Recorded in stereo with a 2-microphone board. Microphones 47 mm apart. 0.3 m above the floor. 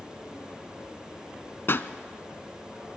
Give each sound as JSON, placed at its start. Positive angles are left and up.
{"t": 1.7, "sound": "a pop", "side_deg": 55, "distance_m": 0.8}